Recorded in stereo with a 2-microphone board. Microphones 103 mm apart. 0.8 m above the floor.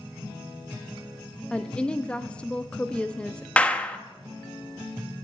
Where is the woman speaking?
10° left (ahead or behind), 0.6 m.